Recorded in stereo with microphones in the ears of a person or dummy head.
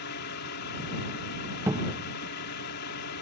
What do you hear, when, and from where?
0.0 s a drone: 55° left (ahead or behind)
1.7 s a cupboard door: 15° right (ahead or behind)